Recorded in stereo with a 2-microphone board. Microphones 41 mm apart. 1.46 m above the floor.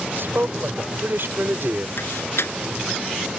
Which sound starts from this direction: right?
A man speaking, at 0.2 s.